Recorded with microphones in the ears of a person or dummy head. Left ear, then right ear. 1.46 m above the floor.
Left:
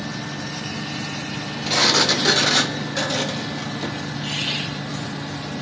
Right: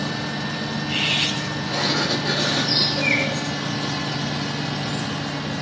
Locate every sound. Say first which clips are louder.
1.7 s a sliding door: left 6 dB; 75° left (ahead or behind), 0.6 m